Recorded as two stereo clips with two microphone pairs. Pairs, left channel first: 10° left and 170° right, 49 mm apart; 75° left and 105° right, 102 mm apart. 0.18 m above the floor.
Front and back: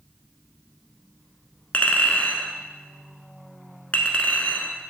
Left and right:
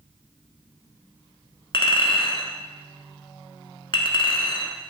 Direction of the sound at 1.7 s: 65° left.